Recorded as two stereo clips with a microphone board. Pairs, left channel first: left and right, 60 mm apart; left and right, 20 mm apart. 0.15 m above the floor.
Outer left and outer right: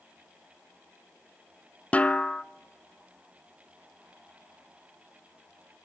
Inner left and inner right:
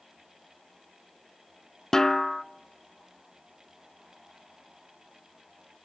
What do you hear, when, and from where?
1.9 s a snare drum: 25° left (ahead or behind), 0.5 m